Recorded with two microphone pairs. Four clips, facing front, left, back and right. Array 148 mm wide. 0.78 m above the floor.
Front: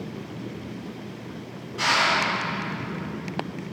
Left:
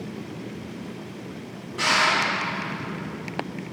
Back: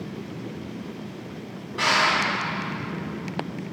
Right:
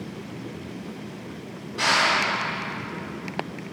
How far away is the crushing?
About 1.8 m.